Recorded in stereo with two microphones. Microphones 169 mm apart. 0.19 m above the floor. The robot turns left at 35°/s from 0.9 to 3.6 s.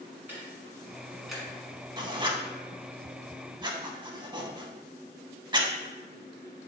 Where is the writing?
25° right (ahead or behind), 0.5 m.